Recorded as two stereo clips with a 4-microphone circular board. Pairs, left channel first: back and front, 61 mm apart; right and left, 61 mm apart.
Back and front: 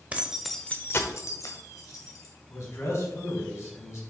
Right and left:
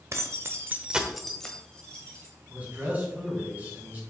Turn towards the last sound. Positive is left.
turn(degrees=150)